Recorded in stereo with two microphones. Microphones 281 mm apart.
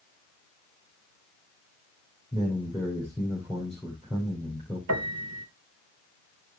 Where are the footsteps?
I don't hear footsteps.